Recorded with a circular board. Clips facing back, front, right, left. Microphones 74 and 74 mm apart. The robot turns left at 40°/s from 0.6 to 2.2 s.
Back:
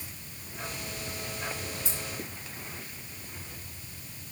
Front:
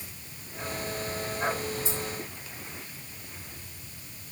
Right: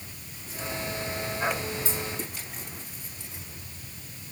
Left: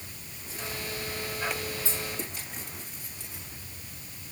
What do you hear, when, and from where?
1.9 s keys jangling: 150° right, 1.3 m; by 2.0 s 155° right, 1.3 m